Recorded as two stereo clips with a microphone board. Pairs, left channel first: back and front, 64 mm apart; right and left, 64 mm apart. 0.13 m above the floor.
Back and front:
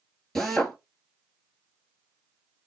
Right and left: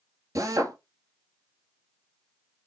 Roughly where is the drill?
Left.